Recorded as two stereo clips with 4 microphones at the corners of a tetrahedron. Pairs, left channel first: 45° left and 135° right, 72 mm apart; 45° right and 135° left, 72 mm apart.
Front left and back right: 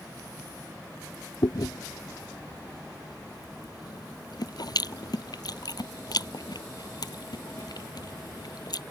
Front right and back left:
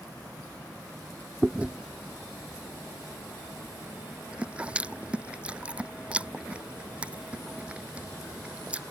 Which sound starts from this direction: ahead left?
Chewing, at 1.4 s.